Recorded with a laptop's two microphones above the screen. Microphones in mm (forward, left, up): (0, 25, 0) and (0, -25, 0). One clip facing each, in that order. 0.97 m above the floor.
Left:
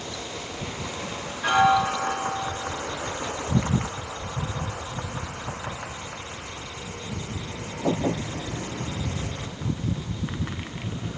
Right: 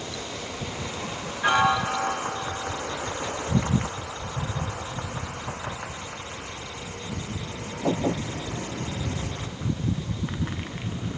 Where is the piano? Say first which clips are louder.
Left 2 dB; 20° right (ahead or behind), 2 m.